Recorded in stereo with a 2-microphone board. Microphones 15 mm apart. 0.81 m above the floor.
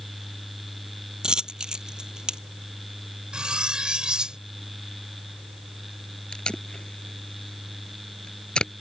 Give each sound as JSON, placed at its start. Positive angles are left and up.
{"t": 1.2, "sound": "a dropped coin", "side_deg": -60}
{"t": 3.3, "sound": "cutlery clinking", "side_deg": -85}
{"t": 6.3, "sound": "tape being pulled", "side_deg": 80}